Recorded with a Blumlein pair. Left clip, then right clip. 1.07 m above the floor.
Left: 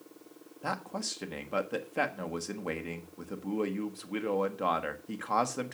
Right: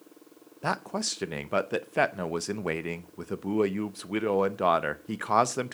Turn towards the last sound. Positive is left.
turn(degrees=-20)